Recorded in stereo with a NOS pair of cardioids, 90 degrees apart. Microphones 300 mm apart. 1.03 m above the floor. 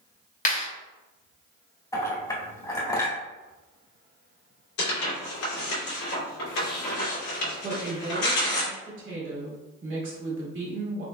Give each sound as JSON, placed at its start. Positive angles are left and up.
{"t": 0.5, "sound": "a clap", "azimuth_deg": 30, "distance_m": 1.7}
{"t": 1.9, "sound": "a clink", "azimuth_deg": 10, "distance_m": 1.5}
{"t": 4.8, "sound": "tearing paper", "azimuth_deg": 60, "distance_m": 2.0}
{"t": 7.6, "sound": "a woman speaking", "azimuth_deg": -45, "distance_m": 1.9}